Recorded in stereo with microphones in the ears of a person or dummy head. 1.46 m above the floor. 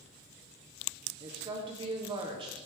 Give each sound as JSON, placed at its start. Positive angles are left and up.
{"t": 1.2, "sound": "a woman speaking", "side_deg": -25, "distance_m": 0.5}